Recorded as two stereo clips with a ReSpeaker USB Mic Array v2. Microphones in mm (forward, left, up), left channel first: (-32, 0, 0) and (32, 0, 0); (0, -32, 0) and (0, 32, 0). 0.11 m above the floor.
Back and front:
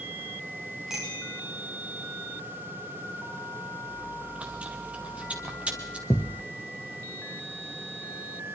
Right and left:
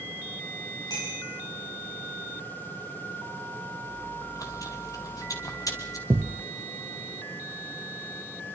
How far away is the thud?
About 1.1 m.